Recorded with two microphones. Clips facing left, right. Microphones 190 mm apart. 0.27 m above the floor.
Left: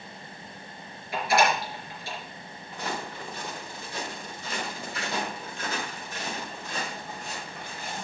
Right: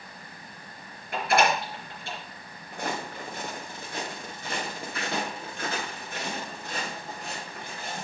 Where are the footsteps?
55° right (ahead or behind), 2.5 m; by 8.0 s 60° right (ahead or behind), 6.5 m.